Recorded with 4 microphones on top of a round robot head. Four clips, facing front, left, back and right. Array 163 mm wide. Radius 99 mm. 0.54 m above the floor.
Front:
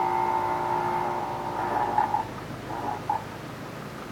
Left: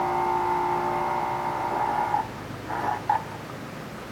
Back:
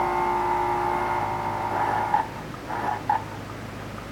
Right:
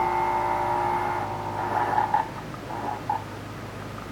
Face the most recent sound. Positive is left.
No sound to turn to.